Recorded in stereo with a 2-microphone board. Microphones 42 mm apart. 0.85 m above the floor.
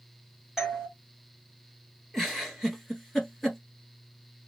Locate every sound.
0.6 s a doorbell: 10° right (ahead or behind), 1.4 m
2.1 s a giggle: 10° left (ahead or behind), 1.4 m